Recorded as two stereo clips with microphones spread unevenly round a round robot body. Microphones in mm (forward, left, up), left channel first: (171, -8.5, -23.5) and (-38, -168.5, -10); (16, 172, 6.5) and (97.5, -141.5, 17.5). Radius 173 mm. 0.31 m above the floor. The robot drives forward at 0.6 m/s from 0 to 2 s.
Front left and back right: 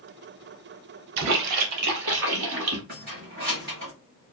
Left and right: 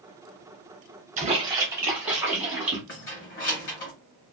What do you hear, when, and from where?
1.2 s a splash: 140° right, 0.5 m; by 2.8 s 160° right, 0.9 m
2.9 s keys jangling: 155° left, 1.0 m